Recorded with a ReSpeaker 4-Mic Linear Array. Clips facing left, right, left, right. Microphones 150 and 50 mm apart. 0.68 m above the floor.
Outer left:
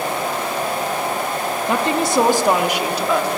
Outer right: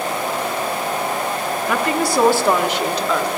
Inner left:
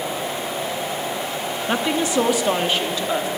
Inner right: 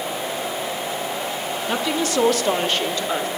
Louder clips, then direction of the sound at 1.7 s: Outer left 1 dB, inner left 2 dB; 25° left (ahead or behind).